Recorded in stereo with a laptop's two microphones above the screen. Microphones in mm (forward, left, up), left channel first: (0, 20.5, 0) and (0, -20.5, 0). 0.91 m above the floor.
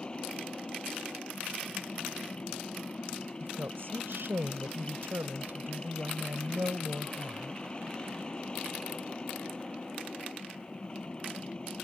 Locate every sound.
0.0 s a machine running: 30° left (ahead or behind)
3.4 s a woman speaking: 80° right